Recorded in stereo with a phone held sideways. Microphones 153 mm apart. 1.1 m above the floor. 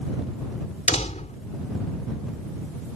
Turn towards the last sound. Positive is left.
turn(degrees=50)  # may be behind; listen again after turning